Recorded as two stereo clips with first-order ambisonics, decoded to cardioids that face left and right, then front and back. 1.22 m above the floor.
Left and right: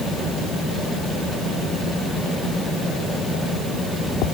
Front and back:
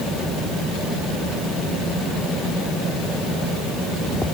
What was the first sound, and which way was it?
Only background noise.